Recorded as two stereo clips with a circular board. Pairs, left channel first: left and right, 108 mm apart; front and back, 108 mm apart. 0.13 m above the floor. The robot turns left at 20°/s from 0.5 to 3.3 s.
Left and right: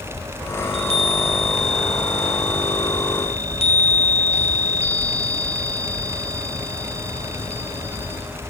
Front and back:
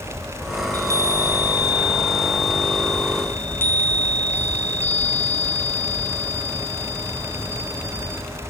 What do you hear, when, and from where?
0.6 s a chime: 125° left, 1.6 m; by 8.2 s 70° left, 1.6 m